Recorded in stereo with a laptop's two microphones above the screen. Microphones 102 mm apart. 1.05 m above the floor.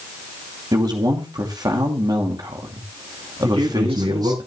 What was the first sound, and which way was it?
A man speaking, 40° right (ahead or behind).